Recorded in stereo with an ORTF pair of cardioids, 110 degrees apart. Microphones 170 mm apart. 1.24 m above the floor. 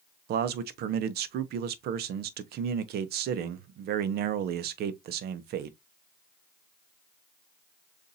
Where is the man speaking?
70° right, 0.8 m.